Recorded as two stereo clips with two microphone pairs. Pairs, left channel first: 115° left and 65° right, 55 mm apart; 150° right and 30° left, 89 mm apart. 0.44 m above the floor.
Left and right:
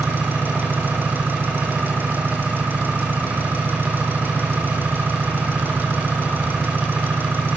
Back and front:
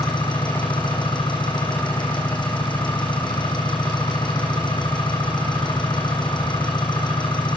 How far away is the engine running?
About 6 m.